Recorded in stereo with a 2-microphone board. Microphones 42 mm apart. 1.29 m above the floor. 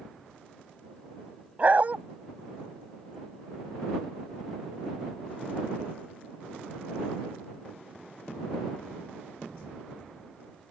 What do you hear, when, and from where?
1.6 s a dog barking: 40° right (ahead or behind)